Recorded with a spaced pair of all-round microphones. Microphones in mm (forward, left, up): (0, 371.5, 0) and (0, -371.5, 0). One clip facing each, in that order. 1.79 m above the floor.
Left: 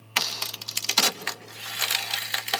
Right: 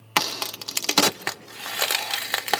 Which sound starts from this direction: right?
A crack, at 0.2 s.